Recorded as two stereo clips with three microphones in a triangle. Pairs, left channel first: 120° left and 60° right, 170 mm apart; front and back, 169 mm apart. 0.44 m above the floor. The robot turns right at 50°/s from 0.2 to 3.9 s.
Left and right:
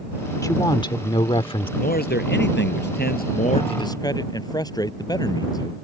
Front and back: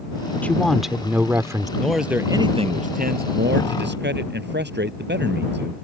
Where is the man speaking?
80° left; by 5.8 s 170° right.